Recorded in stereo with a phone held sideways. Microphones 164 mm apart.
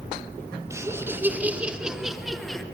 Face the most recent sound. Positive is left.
turn(degrees=5)  # may be behind; listen again after turning